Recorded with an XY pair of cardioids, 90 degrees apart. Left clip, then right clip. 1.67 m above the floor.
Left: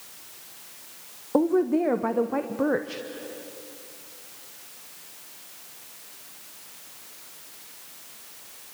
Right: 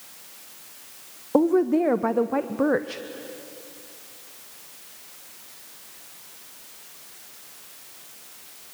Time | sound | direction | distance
1.3 | a woman speaking | 20° right | 0.9 m